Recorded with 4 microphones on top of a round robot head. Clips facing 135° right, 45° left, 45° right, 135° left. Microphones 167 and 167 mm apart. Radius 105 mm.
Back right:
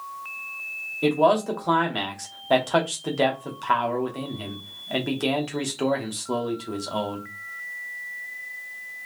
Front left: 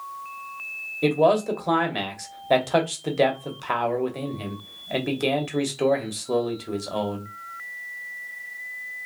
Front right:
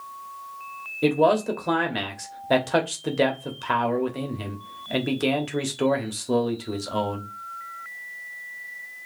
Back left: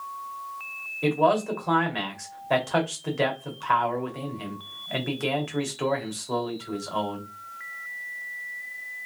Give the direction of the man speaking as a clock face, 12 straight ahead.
1 o'clock.